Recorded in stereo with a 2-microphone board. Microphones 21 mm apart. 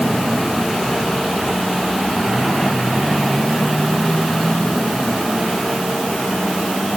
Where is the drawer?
I don't hear a drawer.